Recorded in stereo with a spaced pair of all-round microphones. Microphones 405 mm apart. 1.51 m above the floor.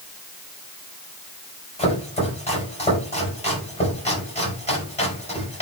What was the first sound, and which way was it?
Chopping, 15° left (ahead or behind).